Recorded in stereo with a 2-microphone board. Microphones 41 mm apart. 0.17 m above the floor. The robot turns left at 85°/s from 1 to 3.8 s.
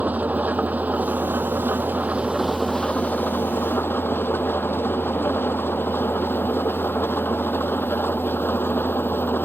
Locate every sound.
0.0 s an engine running: 45° right; by 9.5 s 75° left